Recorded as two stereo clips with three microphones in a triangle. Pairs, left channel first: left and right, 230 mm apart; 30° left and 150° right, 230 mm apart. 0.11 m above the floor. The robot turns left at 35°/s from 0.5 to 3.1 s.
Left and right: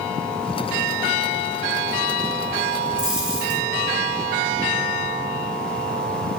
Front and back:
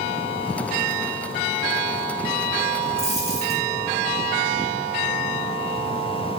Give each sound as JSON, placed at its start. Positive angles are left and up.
{"t": 3.0, "sound": "a dropped coin", "azimuth_deg": -85, "distance_m": 1.9}